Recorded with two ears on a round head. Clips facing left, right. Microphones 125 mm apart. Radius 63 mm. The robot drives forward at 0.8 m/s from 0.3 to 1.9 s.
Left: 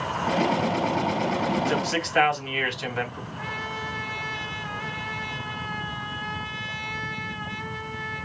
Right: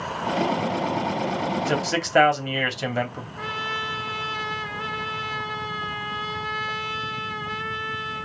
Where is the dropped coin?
I don't hear a dropped coin.